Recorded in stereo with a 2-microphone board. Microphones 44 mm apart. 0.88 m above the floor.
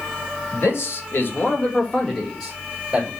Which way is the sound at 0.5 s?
65° left (ahead or behind).